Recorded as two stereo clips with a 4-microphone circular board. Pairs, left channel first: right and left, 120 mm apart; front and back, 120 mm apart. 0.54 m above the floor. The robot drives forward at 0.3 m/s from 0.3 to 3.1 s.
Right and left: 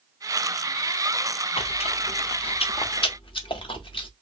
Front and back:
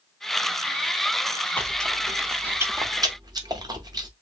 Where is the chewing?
75° right, 0.5 m; by 4.1 s 130° right, 0.6 m.